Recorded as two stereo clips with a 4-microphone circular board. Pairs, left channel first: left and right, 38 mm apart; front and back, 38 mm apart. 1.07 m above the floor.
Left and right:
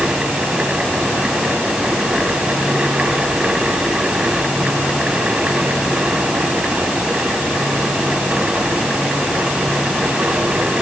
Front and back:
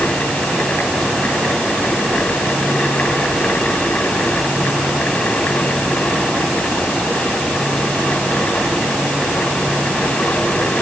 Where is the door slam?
I don't hear a door slam.